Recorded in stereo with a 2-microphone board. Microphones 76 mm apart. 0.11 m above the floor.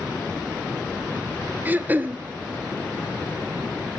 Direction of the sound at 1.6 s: 25° right (ahead or behind).